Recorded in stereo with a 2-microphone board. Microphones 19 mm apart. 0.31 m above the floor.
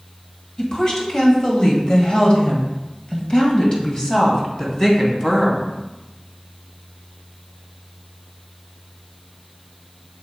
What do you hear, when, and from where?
0.6 s a woman speaking: 35° left (ahead or behind), 1.7 m; by 5.7 s 20° left (ahead or behind), 2.5 m